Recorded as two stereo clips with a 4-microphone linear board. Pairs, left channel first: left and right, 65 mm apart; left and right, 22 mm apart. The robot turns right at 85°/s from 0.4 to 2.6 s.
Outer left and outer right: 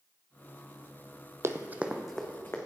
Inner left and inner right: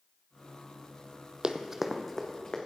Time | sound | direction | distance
1.4 | running footsteps | 45° right (ahead or behind) | 0.6 m